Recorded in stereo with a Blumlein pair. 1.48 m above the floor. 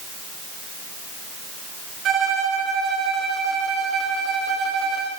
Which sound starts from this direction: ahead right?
A violin, at 2.0 s.